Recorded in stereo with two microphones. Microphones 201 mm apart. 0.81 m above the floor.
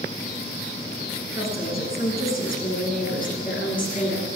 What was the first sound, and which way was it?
A woman speaking, 50° left (ahead or behind).